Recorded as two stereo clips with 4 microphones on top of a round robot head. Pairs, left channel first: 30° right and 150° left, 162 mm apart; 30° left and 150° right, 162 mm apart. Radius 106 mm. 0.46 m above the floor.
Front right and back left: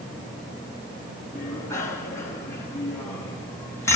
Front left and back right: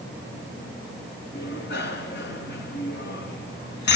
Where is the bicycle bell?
45° left, 4 m.